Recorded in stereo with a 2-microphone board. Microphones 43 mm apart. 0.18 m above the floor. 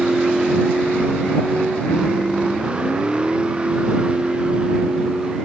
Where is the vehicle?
20° right (ahead or behind); by 5.5 s 25° right (ahead or behind).